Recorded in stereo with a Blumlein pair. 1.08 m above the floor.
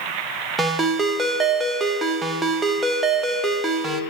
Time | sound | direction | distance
0.6 | a ringtone | 10° right | 1.0 m